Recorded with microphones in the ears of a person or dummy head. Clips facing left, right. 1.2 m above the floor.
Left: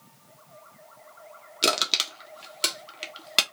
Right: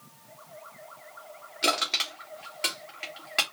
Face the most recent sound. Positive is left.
turn(degrees=55)  # may be behind; listen again after turning